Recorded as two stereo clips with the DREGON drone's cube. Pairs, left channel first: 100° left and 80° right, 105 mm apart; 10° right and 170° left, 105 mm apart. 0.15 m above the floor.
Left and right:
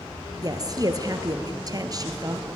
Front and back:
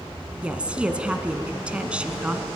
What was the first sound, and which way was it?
A woman speaking, 115° right.